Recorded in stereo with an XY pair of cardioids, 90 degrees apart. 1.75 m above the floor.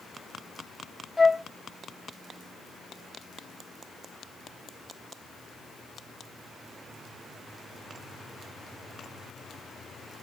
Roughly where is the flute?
Ahead.